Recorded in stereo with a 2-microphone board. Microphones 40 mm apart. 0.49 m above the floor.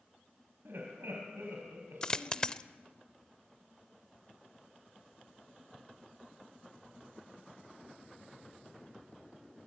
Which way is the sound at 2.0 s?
20° left (ahead or behind).